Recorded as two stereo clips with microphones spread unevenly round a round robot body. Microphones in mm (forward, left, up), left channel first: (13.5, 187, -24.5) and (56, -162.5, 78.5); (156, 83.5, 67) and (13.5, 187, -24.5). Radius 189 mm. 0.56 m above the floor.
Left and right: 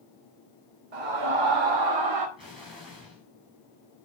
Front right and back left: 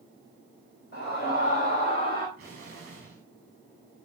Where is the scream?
105° right, 3 m; by 2.3 s 125° right, 2 m.